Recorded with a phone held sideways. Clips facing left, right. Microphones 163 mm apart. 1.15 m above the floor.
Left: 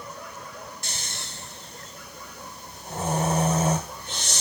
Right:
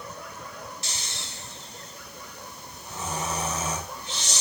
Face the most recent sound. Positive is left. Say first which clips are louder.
# left 1 dB
turn(degrees=55)  # may be behind; listen again after turning